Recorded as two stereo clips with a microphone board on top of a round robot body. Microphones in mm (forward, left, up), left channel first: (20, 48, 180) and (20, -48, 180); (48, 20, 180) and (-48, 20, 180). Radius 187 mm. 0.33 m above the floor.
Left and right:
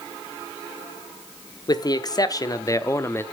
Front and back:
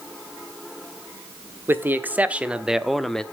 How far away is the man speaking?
About 1.5 m.